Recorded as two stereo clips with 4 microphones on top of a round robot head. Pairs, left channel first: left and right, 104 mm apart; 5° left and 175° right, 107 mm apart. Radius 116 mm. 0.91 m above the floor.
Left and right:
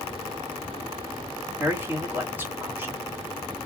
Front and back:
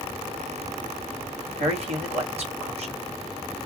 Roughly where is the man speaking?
Behind.